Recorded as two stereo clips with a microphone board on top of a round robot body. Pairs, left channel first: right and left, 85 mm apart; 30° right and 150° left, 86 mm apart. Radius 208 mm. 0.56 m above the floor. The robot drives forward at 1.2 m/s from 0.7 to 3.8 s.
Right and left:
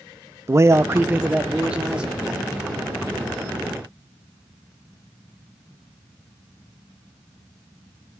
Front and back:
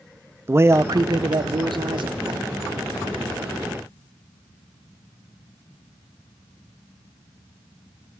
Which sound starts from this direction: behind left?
A man speaking, at 0.5 s.